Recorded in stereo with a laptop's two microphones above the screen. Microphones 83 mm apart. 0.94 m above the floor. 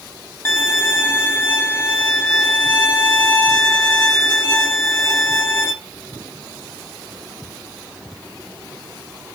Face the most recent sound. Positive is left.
turn(degrees=30)  # may be behind; listen again after turning